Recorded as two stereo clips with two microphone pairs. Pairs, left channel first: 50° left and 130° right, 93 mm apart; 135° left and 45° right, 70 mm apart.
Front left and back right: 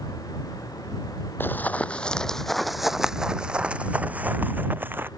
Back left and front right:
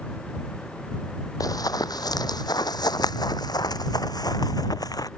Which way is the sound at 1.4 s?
115° left.